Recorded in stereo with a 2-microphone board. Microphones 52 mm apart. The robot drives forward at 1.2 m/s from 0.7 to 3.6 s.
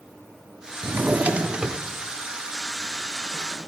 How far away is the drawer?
About 0.5 m.